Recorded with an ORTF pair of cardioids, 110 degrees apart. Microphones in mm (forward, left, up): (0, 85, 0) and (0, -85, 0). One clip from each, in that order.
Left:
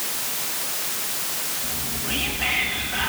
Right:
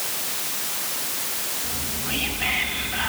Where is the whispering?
5° left, 3.5 m.